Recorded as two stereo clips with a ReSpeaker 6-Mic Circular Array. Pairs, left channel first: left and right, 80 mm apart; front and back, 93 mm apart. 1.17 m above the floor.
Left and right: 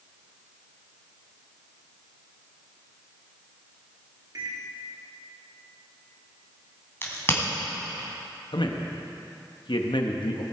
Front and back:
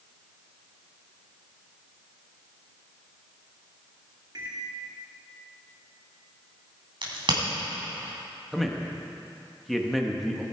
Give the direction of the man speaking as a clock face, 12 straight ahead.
9 o'clock.